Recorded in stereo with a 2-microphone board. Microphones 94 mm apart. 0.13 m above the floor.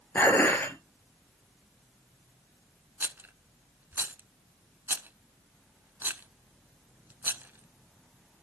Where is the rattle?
20° right (ahead or behind), 0.7 m.